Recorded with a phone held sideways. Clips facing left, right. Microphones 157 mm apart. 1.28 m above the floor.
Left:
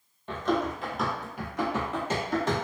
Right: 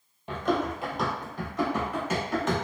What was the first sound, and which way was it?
Running footsteps, 15° right (ahead or behind).